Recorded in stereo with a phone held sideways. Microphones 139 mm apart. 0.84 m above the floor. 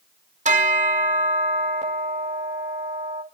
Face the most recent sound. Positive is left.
turn(degrees=-60)  # may be behind; listen again after turning